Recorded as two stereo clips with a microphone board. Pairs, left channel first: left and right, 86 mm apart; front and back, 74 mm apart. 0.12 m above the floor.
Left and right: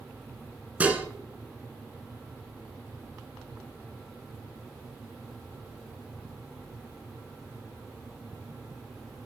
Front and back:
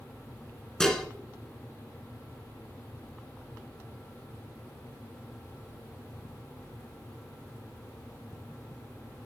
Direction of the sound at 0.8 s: 70° right.